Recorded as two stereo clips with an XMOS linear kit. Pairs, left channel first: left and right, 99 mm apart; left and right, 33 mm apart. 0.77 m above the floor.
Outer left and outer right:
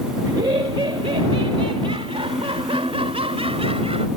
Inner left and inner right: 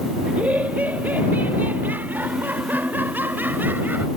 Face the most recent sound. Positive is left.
turn(degrees=-80)